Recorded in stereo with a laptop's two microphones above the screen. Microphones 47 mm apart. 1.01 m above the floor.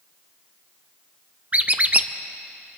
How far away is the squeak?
About 0.5 m.